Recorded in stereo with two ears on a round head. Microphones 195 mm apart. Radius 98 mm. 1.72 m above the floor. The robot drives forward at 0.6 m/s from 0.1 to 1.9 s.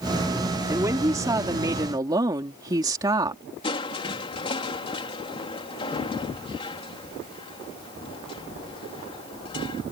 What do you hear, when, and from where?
0.7 s a woman speaking: 15° right (ahead or behind)
3.6 s crushing: 25° left (ahead or behind)